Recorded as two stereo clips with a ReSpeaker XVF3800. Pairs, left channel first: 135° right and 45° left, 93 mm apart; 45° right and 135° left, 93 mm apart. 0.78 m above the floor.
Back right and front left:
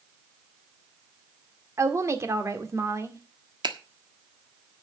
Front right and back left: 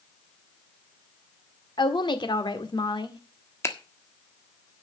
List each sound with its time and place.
1.8 s a woman speaking: 10° right, 1.8 m
3.6 s a finger snap: 15° left, 1.5 m